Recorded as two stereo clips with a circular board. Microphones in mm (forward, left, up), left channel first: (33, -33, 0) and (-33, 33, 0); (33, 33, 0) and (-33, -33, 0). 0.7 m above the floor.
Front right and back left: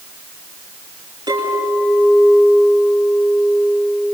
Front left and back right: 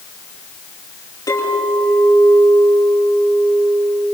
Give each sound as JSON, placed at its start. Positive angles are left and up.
{"t": 1.3, "sound": "a clink", "azimuth_deg": 95, "distance_m": 8.0}